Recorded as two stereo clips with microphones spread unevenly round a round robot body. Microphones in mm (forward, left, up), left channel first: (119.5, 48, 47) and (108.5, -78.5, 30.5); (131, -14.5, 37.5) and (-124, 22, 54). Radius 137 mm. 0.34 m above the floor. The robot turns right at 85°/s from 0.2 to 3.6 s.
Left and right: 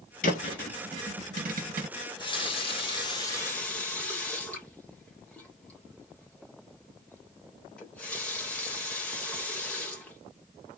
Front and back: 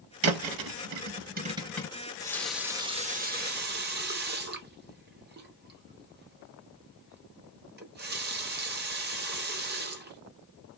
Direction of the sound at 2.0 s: 35° left.